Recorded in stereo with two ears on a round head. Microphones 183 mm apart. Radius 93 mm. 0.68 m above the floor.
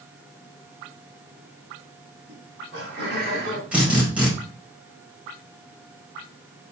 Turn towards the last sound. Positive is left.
turn(degrees=-5)  # may be behind; listen again after turning